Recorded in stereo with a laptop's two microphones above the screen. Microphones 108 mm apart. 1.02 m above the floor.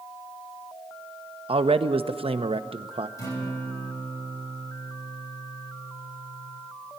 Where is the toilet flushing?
I don't hear a toilet flushing.